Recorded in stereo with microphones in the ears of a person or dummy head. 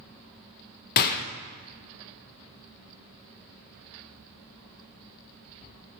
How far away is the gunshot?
About 0.6 m.